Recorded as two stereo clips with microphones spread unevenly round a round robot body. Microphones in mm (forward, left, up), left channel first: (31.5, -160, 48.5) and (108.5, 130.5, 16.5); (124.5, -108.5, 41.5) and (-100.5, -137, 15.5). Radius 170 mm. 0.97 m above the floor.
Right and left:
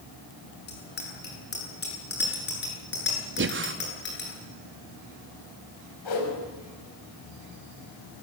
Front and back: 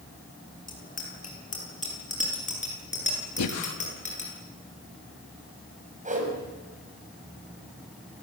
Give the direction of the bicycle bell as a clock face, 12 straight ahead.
2 o'clock.